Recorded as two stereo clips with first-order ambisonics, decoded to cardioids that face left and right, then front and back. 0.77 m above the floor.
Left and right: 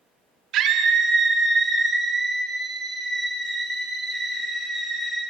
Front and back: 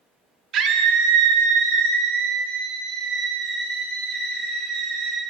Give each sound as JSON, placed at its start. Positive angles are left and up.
{"t": 0.5, "sound": "a scream", "azimuth_deg": -130, "distance_m": 1.2}